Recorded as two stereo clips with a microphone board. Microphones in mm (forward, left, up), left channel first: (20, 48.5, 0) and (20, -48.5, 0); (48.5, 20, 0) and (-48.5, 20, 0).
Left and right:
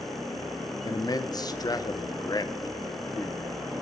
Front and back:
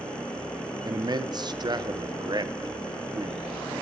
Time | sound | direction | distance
0.8 | a man speaking | 135° left | 0.8 m